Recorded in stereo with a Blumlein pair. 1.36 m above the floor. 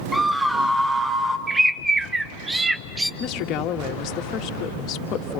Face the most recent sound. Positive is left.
turn(degrees=35)